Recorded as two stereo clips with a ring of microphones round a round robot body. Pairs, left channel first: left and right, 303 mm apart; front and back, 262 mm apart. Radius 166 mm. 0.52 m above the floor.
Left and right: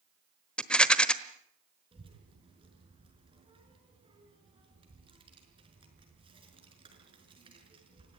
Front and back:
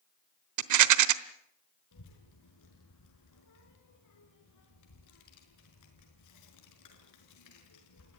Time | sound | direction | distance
0.6 | a rattle | 175° left | 1.2 m
1.9 | a child speaking | 15° right | 5 m